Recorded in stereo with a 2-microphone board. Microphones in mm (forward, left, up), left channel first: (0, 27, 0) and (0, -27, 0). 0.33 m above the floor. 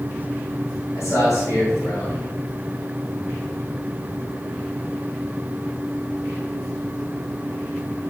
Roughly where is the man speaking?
Left.